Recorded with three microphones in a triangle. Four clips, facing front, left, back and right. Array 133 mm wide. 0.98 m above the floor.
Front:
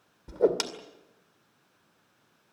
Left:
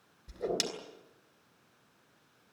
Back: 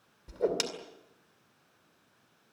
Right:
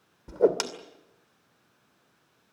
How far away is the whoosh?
About 2 m.